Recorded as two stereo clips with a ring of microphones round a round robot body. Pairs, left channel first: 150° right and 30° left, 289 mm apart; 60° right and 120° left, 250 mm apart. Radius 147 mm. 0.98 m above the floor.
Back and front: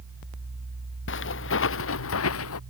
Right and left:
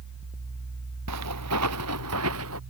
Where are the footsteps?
160° left; by 2.6 s 165° left.